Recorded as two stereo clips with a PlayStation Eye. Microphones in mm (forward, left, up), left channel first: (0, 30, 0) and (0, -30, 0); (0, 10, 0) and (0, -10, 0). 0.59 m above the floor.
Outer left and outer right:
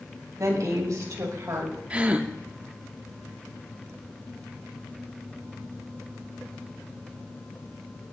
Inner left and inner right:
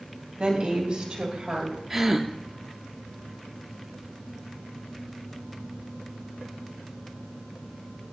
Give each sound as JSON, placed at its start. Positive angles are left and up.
{"t": 0.4, "sound": "a woman speaking", "side_deg": -60, "distance_m": 3.0}
{"t": 1.9, "sound": "a gasp", "side_deg": -20, "distance_m": 0.7}